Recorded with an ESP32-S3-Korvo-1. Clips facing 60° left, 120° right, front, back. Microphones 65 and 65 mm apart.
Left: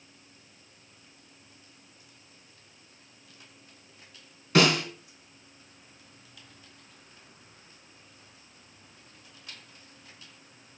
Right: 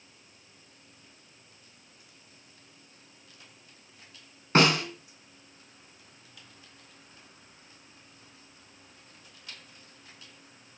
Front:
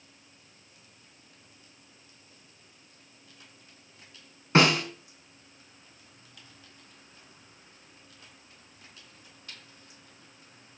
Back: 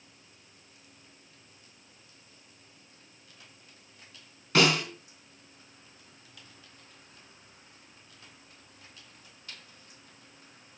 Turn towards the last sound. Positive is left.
turn(degrees=-65)